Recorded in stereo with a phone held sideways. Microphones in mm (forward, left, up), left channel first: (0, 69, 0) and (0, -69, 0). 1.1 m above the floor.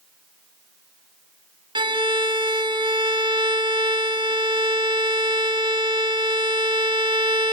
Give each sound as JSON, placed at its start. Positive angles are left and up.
{"t": 1.8, "sound": "a violin", "side_deg": -35, "distance_m": 0.9}